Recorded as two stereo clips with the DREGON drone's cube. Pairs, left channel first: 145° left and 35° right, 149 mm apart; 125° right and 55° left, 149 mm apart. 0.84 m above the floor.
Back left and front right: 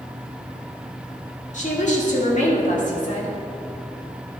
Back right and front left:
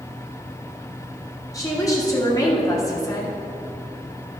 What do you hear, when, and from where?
1.5 s a woman speaking: 170° left, 1.9 m